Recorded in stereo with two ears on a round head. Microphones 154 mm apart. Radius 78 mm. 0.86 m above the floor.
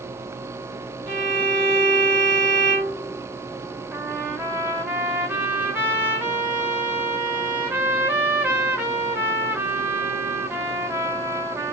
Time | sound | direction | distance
1.1 | a violin | 30° right (ahead or behind) | 2 m
3.9 | a trumpet | 10° right (ahead or behind) | 1.1 m